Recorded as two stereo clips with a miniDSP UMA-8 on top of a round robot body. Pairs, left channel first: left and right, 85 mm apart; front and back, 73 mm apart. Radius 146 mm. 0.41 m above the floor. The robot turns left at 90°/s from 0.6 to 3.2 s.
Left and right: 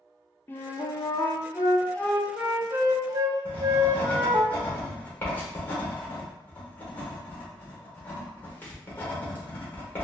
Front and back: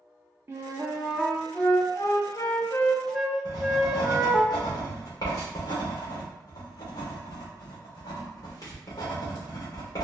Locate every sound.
0.5 s a flute: 145° left, 0.8 m; by 4.5 s 90° right, 0.8 m
3.5 s writing: 25° left, 1.6 m